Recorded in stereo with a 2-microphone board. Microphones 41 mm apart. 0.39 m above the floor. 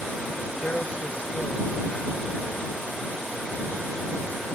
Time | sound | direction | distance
0.6 | a man speaking | 35° left (ahead or behind) | ?